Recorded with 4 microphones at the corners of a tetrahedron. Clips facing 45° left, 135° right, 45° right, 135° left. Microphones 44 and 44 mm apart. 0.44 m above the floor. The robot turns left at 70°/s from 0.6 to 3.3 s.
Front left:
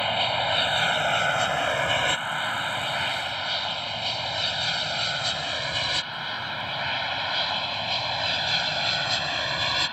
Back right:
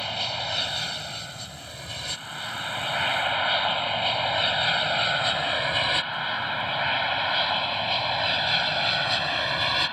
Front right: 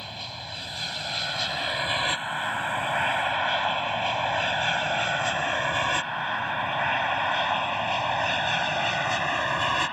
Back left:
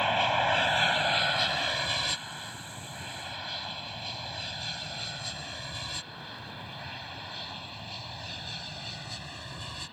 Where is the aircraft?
105° left; by 9.9 s 55° right.